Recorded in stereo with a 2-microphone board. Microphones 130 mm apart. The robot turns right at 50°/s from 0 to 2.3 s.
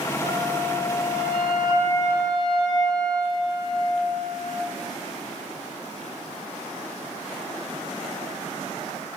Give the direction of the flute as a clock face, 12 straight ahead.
3 o'clock.